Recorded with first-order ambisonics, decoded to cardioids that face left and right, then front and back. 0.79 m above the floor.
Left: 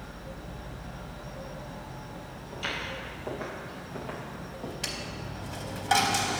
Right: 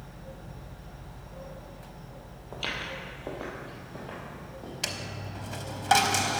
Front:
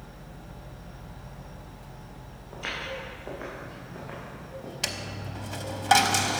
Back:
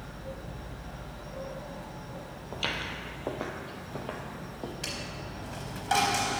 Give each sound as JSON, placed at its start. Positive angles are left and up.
{"t": 2.5, "sound": "footsteps", "azimuth_deg": -150, "distance_m": 1.6}
{"t": 4.8, "sound": "a dropped coin", "azimuth_deg": -30, "distance_m": 0.7}